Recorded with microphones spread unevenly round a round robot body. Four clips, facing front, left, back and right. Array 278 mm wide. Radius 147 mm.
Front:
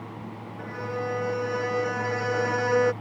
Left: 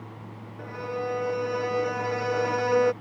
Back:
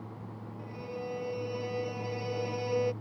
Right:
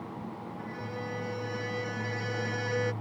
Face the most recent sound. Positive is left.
turn(degrees=40)